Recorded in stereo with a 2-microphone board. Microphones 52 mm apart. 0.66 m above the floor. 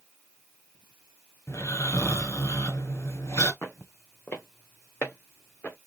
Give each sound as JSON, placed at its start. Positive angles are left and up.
{"t": 1.5, "sound": "snoring", "side_deg": 70, "distance_m": 1.5}
{"t": 3.6, "sound": "footsteps", "side_deg": 60, "distance_m": 1.3}